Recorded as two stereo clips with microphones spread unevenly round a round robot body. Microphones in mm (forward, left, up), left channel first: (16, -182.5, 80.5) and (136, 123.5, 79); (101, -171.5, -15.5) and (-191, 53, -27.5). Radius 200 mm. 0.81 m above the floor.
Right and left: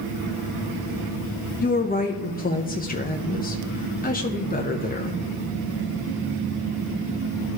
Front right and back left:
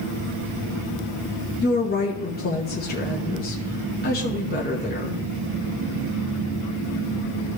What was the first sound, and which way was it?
A woman speaking, 75° right.